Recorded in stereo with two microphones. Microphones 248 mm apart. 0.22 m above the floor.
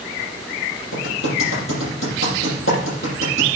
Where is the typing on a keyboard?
55° left (ahead or behind), 7.5 m.